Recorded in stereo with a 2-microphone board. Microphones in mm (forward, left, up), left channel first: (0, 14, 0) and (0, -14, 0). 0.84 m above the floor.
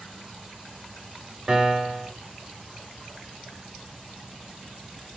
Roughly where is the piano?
Right.